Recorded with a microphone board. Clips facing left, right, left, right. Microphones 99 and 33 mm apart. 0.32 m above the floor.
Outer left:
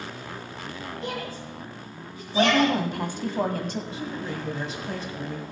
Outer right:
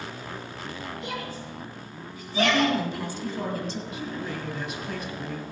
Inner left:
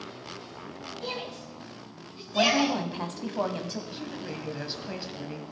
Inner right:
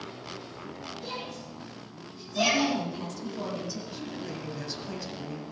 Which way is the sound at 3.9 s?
30° left (ahead or behind).